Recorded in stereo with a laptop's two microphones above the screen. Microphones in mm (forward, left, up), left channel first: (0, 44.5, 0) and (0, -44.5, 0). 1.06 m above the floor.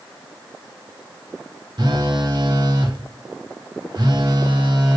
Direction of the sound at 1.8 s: 55° right (ahead or behind).